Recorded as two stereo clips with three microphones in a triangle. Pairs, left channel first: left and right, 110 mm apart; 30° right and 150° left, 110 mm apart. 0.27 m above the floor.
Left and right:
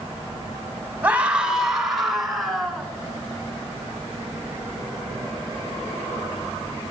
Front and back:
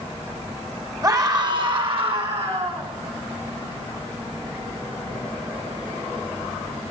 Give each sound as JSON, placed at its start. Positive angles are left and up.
{"t": 1.0, "sound": "a scream", "azimuth_deg": -160, "distance_m": 1.6}